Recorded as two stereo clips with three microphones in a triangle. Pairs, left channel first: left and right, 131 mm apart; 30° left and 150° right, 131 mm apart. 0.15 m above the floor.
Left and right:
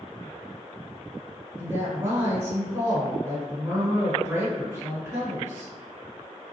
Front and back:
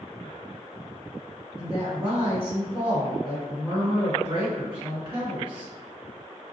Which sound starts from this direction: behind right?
A woman speaking, at 1.6 s.